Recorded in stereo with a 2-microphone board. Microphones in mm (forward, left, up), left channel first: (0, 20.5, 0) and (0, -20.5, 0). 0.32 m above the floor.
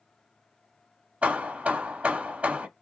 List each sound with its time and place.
1.2 s hammering: 40° right (ahead or behind), 0.8 m